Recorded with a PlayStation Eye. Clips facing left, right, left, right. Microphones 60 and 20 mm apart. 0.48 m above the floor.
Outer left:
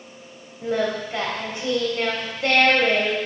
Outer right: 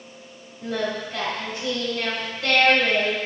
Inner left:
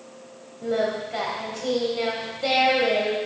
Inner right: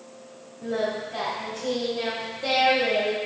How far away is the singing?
About 2.5 m.